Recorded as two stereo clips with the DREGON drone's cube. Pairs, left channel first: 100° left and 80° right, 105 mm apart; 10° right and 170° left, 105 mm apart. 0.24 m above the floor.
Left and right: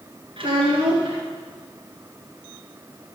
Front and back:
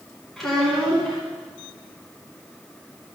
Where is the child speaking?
100° right, 1.8 m.